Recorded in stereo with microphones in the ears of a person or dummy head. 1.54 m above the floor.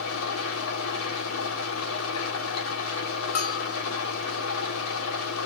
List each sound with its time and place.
0.0 s an engine running: 80° left, 3.5 m
3.4 s a bell: 50° left (ahead or behind), 3 m